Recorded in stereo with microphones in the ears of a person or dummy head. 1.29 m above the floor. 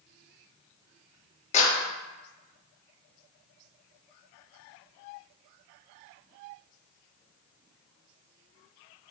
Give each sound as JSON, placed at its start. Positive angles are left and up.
{"t": 1.5, "sound": "a clap", "side_deg": 40, "distance_m": 1.3}